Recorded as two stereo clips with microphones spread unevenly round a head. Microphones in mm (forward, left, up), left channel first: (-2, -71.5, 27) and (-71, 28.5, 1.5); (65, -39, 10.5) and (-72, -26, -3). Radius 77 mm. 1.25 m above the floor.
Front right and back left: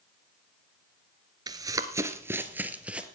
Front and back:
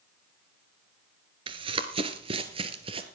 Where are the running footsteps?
175° left, 1.3 m; by 3.1 s 145° right, 1.7 m.